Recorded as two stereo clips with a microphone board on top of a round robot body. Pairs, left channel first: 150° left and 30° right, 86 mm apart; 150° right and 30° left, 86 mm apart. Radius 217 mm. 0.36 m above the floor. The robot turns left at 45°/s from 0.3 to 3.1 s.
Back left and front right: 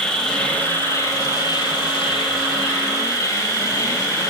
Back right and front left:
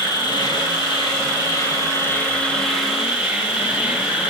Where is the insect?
130° right, 4.5 m; by 4.3 s 105° left, 4.5 m.